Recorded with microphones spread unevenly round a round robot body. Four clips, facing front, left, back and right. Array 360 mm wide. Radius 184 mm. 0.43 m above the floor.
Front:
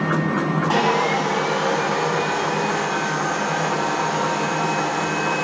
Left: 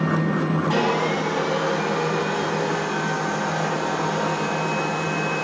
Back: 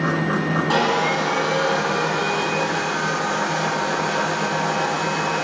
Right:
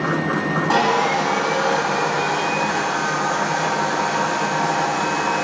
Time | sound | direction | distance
0.7 | sawing | 90° right | 3.5 m